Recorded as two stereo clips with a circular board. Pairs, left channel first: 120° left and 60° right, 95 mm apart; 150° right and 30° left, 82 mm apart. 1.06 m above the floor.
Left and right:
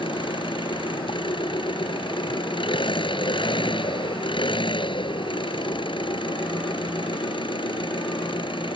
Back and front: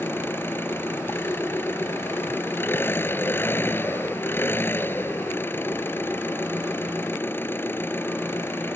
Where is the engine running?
145° left.